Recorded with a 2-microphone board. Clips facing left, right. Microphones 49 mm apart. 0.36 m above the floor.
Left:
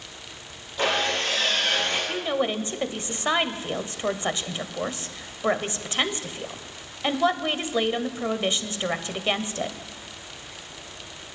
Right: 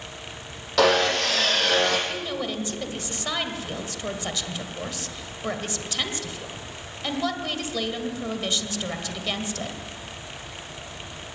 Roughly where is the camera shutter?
No camera shutter in this recording.